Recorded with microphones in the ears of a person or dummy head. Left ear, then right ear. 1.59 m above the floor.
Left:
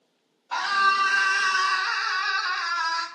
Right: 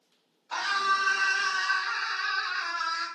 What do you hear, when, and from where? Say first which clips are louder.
0.5 s a scream: left 5 dB; 5° left (ahead or behind), 0.7 m; by 3.1 s 60° left (ahead or behind), 0.9 m